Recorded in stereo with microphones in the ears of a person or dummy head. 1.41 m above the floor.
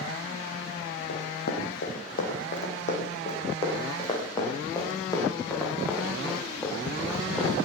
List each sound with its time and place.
1.1 s running footsteps: 65° left (ahead or behind), 4.5 m; by 7.6 s centre (ahead or behind), 8 m